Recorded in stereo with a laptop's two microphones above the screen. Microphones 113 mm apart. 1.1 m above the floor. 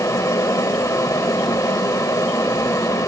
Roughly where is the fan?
Left.